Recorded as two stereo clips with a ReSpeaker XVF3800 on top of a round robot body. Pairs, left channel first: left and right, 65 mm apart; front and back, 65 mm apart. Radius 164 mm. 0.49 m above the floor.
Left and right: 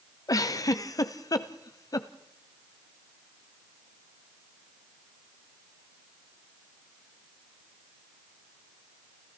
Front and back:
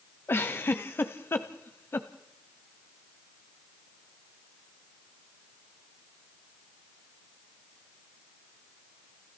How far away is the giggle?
About 1.0 m.